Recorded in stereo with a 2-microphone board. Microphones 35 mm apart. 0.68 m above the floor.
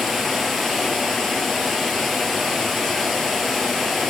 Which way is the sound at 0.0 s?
Centre (ahead or behind).